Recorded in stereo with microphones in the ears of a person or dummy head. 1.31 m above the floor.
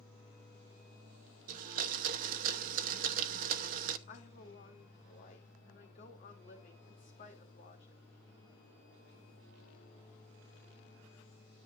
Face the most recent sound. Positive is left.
turn(degrees=45)  # may be behind; listen again after turning